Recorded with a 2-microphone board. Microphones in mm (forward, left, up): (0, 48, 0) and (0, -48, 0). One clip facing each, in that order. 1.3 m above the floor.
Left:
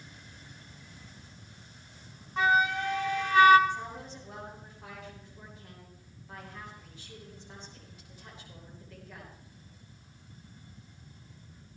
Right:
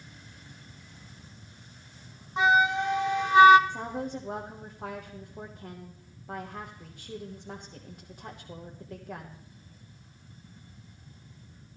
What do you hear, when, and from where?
2.4 s a flute: 20° right (ahead or behind), 0.9 m
3.7 s a woman speaking: 50° right (ahead or behind), 1.3 m